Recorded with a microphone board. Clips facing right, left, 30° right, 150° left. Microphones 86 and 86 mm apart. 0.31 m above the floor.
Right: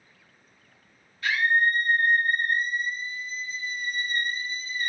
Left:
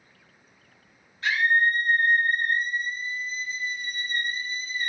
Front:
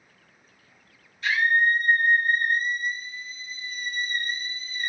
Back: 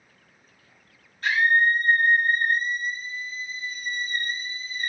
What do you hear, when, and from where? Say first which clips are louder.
1.2 s a scream: left 1 dB, back 1 dB; 140° left, 1.9 m